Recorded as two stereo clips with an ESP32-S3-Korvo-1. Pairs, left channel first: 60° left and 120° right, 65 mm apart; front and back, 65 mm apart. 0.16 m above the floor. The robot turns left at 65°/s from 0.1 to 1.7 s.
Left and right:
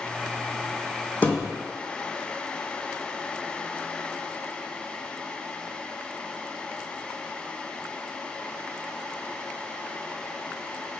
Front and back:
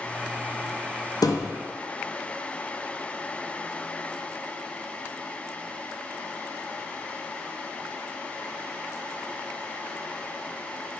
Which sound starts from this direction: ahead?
A thud, at 1.2 s.